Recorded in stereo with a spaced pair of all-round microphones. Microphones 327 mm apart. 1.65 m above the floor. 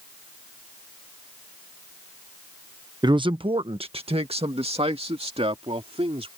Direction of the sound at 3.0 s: 15° right (ahead or behind).